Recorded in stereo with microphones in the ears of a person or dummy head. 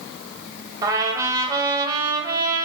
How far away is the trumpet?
About 1.0 m.